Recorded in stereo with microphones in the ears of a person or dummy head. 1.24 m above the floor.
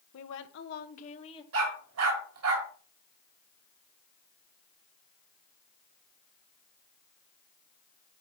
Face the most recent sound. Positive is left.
turn(degrees=-75)  # may be behind; listen again after turning